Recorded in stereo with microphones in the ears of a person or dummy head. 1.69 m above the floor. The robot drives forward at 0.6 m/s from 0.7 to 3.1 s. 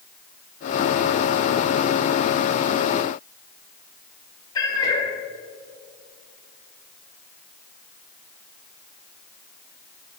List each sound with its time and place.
4.5 s a cat meowing: 30° left (ahead or behind), 2.5 m